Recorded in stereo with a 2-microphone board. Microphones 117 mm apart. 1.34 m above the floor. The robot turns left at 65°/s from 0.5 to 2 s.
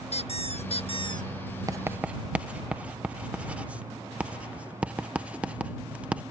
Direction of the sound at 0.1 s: 90° left.